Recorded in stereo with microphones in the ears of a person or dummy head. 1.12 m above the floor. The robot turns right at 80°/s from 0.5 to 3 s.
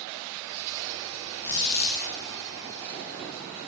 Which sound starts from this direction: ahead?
A squeak, at 1.4 s.